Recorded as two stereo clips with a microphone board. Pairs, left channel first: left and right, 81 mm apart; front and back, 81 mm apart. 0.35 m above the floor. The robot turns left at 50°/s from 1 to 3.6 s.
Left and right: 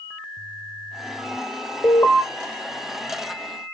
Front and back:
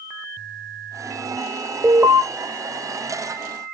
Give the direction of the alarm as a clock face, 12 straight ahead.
8 o'clock.